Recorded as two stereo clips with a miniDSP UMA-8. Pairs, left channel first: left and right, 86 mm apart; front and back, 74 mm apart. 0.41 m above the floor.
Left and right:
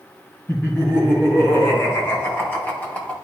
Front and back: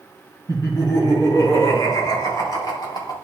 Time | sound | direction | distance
0.5 | laughter | 35° left | 4.5 m